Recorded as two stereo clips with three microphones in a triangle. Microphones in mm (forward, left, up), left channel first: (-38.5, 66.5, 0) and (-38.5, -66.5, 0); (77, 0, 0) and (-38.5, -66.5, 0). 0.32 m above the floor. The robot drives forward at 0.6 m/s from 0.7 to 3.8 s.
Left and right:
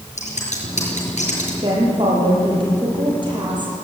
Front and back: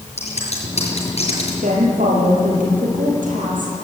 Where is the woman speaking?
140° right, 7.5 m; by 3.9 s 145° right, 8.5 m.